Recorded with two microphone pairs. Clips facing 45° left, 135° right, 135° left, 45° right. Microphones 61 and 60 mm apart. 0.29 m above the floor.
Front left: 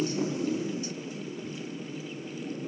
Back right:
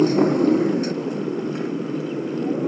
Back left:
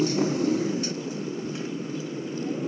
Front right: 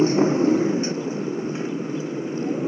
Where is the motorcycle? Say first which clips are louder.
Back right 13 dB, front right 6 dB; 105° right; by 2.7 s 115° right.